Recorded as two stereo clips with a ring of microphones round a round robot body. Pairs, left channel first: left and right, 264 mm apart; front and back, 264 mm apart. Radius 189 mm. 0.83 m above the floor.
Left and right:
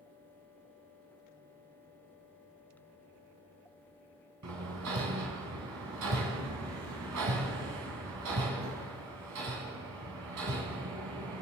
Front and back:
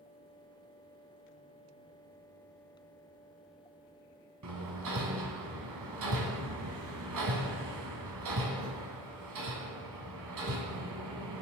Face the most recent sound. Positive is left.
turn(degrees=-140)